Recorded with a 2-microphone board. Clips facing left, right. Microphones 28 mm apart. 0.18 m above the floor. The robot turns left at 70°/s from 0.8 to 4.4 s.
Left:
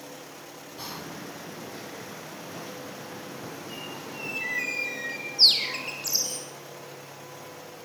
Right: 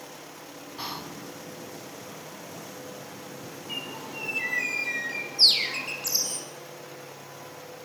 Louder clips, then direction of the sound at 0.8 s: Right 2 dB; 25° right (ahead or behind).